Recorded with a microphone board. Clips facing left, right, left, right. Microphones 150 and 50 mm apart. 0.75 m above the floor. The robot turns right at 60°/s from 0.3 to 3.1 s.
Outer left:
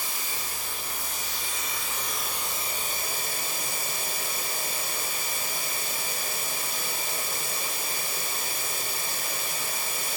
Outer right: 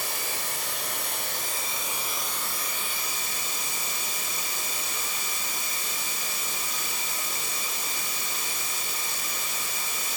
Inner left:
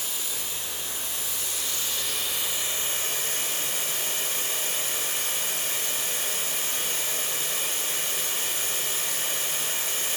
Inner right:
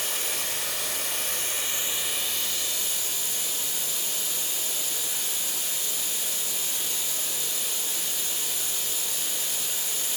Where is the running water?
115° right, 1.6 m; by 10.2 s 55° left, 1.6 m.